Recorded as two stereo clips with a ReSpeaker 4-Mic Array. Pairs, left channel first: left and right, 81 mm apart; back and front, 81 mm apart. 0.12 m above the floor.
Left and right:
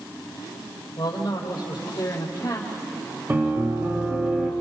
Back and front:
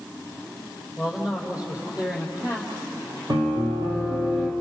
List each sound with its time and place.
1.0 s a man speaking: 80° left, 4 m; by 2.7 s 60° left, 4.5 m
3.3 s a piano: 30° right, 4 m